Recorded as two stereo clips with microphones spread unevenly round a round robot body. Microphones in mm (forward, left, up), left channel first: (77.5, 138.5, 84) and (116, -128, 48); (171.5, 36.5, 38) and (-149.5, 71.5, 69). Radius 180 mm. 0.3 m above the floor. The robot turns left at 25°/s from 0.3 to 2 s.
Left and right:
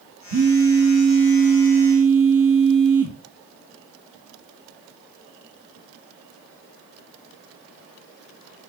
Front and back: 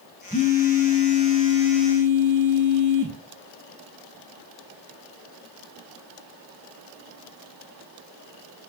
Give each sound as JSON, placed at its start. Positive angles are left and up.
{"t": 0.3, "sound": "a phone buzzing", "azimuth_deg": -80, "distance_m": 0.8}